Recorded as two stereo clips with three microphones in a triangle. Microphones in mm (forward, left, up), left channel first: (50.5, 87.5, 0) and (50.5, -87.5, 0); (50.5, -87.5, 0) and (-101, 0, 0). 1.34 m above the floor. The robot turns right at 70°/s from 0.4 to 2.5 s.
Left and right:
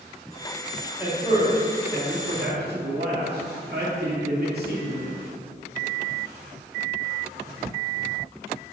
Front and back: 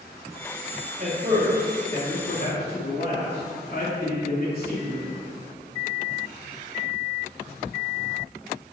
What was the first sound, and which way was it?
A man speaking, 170° right.